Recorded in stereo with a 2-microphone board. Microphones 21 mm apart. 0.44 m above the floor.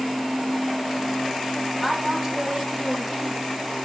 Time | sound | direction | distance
1.8 | a woman speaking | 15° right (ahead or behind) | 1.6 m